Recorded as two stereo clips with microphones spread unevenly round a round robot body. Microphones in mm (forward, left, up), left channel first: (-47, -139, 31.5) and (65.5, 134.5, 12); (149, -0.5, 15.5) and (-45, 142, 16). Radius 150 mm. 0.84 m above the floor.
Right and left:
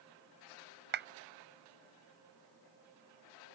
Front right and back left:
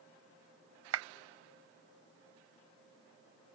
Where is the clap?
125° left.